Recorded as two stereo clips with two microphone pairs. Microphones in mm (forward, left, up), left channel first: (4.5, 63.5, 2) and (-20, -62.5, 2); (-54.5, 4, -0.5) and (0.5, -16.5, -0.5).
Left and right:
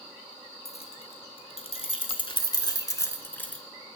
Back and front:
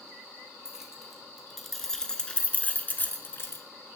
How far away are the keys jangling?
About 1.8 m.